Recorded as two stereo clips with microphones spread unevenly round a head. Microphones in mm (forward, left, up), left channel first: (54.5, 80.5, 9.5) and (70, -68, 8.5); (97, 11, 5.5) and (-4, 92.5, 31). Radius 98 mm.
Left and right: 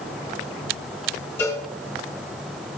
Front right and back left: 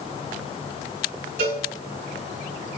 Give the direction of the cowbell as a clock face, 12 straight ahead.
6 o'clock.